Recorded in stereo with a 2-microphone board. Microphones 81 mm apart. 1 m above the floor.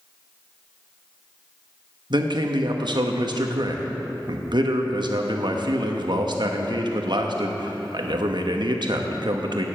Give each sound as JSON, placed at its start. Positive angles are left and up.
{"t": 2.1, "sound": "a man speaking", "side_deg": -70, "distance_m": 1.1}